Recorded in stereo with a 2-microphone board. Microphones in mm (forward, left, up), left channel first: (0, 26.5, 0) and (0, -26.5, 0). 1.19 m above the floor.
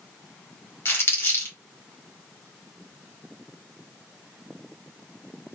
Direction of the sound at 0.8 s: 45° left (ahead or behind).